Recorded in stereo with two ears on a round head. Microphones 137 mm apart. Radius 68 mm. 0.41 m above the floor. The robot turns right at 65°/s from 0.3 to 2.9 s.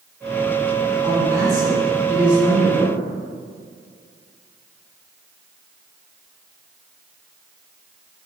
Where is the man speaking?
25° right (ahead or behind), 1.5 m; by 3.0 s 10° left (ahead or behind), 1.5 m.